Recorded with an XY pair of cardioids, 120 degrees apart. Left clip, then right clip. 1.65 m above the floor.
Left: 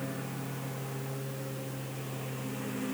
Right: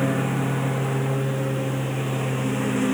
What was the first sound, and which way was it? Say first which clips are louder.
A lawn mower: right 14 dB; 70° right.